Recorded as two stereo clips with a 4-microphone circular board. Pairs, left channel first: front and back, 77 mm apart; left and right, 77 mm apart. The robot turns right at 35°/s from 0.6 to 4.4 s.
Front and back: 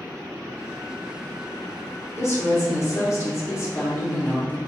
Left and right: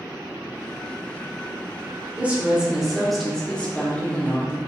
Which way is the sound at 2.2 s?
30° right.